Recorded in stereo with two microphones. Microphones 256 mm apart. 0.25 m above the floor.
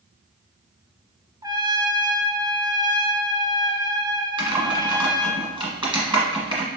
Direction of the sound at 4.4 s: 20° right (ahead or behind).